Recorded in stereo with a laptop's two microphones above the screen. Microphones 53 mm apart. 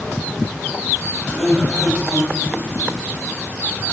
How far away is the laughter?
About 4.5 m.